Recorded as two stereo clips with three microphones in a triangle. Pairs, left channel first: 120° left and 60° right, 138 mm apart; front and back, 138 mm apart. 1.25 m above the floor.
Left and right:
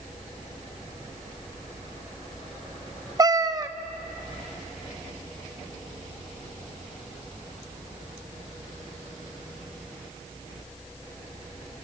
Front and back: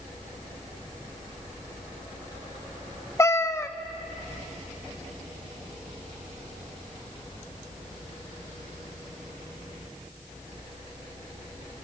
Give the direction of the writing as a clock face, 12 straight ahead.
No writing in this recording.